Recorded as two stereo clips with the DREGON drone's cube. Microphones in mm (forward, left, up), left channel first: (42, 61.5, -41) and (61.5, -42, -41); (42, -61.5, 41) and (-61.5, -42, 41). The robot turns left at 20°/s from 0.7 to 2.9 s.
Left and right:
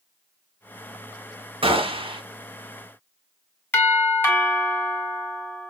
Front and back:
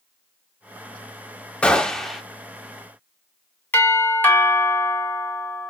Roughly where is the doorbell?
Ahead left.